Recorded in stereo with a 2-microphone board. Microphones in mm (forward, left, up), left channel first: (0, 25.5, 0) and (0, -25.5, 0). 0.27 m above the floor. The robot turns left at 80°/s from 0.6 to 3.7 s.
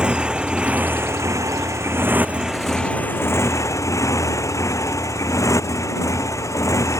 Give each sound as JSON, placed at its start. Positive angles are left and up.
{"t": 0.0, "sound": "a motorcycle", "azimuth_deg": -20}